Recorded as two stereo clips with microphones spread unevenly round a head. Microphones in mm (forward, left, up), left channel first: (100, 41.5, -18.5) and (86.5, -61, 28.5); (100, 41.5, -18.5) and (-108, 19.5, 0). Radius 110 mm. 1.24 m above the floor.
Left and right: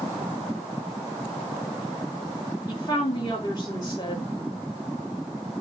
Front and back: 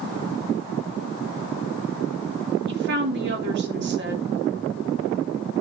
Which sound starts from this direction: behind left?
A woman speaking, at 2.7 s.